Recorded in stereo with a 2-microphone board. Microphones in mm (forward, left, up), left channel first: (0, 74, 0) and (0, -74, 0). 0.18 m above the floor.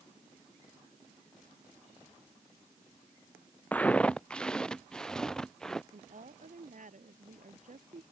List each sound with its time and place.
3.7 s footsteps: 10° left (ahead or behind); by 5.8 s 5° left (ahead or behind)
5.9 s a woman speaking: 65° right (ahead or behind)